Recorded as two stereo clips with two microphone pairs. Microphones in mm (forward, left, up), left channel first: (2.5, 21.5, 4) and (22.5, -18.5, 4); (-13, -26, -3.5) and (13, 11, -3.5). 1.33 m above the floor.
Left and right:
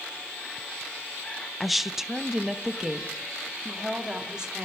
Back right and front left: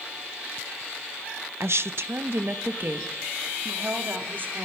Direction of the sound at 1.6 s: 25° left.